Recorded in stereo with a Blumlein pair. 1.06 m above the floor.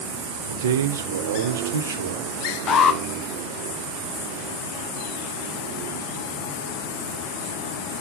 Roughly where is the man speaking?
Ahead right.